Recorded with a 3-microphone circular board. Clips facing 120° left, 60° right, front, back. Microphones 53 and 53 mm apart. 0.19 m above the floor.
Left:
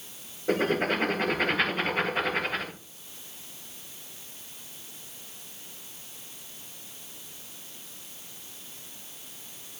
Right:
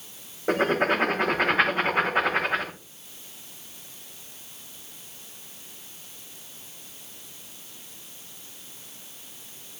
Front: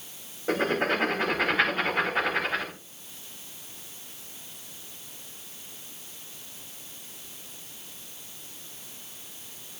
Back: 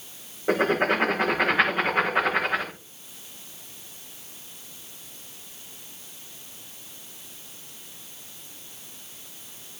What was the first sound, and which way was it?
Writing, 105° right.